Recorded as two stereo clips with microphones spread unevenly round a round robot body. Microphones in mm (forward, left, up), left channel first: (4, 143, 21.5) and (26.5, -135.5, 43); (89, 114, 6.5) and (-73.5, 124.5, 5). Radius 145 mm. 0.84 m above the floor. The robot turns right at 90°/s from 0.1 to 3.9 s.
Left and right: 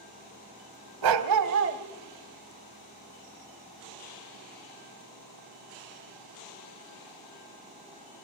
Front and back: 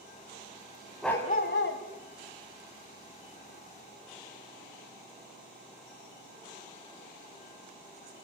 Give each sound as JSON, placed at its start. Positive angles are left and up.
{"t": 1.0, "sound": "a dog barking", "azimuth_deg": -95, "distance_m": 1.5}